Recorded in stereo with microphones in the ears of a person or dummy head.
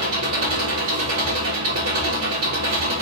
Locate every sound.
0.0 s an engine running: 75° right (ahead or behind), 2.5 m